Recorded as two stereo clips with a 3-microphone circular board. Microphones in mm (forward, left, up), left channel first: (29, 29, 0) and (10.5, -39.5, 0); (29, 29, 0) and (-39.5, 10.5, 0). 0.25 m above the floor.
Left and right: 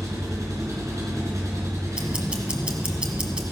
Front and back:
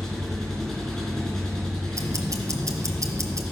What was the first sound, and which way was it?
An engine running, 65° right.